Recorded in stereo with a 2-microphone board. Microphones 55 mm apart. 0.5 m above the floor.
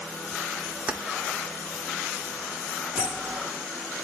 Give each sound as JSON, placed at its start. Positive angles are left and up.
{"t": 0.9, "sound": "keys jangling", "side_deg": -25, "distance_m": 0.6}
{"t": 3.0, "sound": "a bell", "side_deg": -15, "distance_m": 4.5}